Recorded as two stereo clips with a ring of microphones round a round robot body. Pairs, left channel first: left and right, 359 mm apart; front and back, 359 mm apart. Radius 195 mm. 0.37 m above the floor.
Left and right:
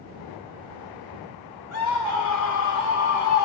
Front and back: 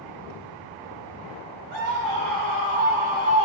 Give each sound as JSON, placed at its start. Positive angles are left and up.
{"t": 1.7, "sound": "a scream", "azimuth_deg": 130, "distance_m": 2.5}